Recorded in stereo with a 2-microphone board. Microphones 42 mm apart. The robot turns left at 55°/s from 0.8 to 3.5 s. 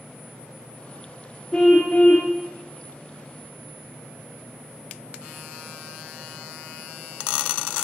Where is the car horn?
170° left, 4 m; by 2.3 s 125° left, 4 m.